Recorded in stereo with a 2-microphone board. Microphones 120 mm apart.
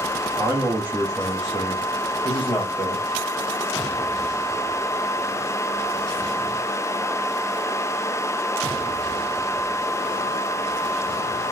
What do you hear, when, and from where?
0.4 s a man speaking: 30° right (ahead or behind), 1.0 m; by 3.0 s 35° left (ahead or behind), 1.7 m